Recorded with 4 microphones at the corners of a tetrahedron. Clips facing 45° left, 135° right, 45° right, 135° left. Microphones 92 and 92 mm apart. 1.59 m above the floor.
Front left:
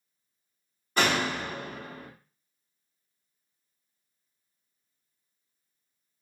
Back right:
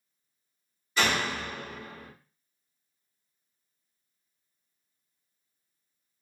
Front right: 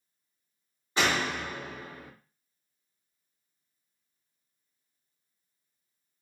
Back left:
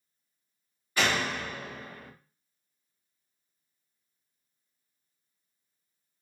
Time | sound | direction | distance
1.0 | a door slam | 15° left | 1.0 m